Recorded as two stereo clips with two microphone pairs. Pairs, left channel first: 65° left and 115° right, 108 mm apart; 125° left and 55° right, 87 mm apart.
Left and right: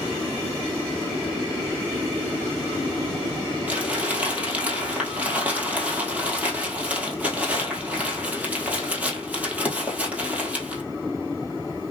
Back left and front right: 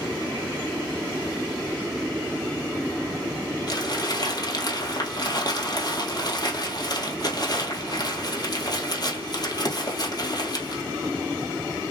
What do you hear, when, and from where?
3.7 s crumpling: 170° left, 1.8 m